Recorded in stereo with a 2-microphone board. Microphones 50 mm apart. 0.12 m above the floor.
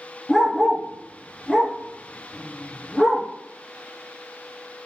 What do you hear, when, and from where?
0.3 s a dog barking: 10° right (ahead or behind), 2.5 m